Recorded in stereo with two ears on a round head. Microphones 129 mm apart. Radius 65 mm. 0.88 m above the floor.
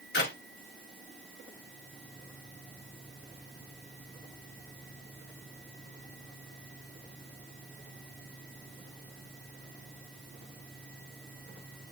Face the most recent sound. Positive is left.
turn(degrees=85)